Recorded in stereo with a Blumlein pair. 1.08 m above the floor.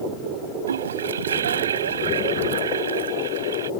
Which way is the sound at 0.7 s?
65° right.